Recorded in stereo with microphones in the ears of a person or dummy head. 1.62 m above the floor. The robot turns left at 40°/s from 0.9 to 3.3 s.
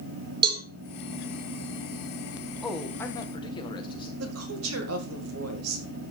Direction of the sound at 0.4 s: 25° right (ahead or behind).